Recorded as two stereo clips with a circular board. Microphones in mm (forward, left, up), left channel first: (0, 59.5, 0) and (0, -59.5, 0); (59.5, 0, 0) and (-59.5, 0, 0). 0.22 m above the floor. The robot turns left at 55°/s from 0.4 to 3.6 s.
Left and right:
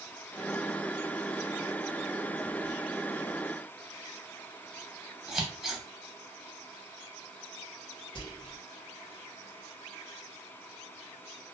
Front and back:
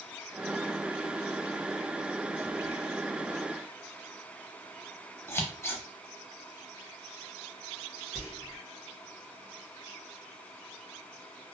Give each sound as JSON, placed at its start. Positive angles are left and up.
{"t": 5.3, "sound": "scissors", "azimuth_deg": -10, "distance_m": 0.6}
{"t": 8.2, "sound": "whispering", "azimuth_deg": 95, "distance_m": 1.3}